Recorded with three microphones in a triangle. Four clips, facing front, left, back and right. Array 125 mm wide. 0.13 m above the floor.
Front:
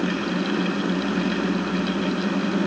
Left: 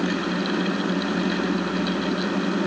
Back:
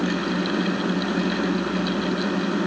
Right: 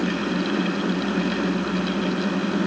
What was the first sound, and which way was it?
Only background noise.